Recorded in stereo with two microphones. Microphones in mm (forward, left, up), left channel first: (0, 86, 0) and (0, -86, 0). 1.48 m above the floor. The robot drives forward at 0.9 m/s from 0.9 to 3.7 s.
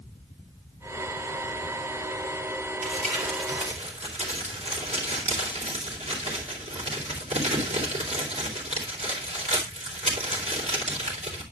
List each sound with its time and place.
2.8 s crumpling: 45° right (ahead or behind), 3.5 m; by 11.4 s 35° right (ahead or behind), 4 m